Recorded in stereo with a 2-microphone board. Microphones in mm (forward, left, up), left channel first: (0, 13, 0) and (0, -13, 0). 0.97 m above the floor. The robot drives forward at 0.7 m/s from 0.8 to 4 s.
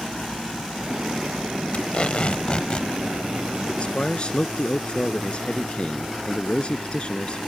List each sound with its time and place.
1.7 s tape being pulled: 55° left (ahead or behind); by 2.9 s 40° left (ahead or behind)
3.8 s a man speaking: 45° left (ahead or behind)